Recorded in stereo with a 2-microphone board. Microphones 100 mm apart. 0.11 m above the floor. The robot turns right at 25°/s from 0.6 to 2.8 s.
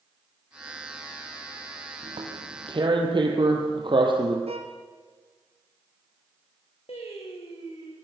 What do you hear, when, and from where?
2.0 s tearing paper: 65° right (ahead or behind), 4 m; by 4.4 s 55° right (ahead or behind), 4 m
4.5 s a violin: 80° right, 2.5 m
6.9 s singing: 80° left, 5 m